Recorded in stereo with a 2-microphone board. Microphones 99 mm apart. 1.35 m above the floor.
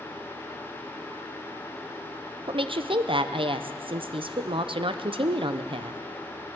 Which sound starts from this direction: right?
A woman speaking, at 2.5 s.